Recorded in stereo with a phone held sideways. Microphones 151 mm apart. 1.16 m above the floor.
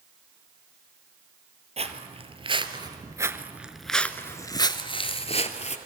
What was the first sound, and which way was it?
Footsteps, 45° right (ahead or behind).